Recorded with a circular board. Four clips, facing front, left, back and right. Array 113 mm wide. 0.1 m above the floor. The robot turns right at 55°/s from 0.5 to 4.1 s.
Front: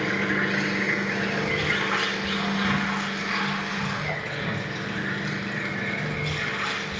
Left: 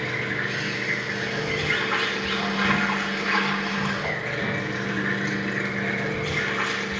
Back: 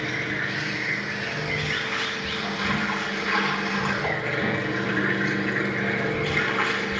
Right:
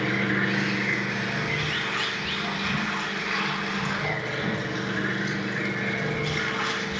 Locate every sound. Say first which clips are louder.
0.0 s running water: right 3 dB, front 4 dB; 40° right, 5 m; by 7.0 s 155° left, 5 m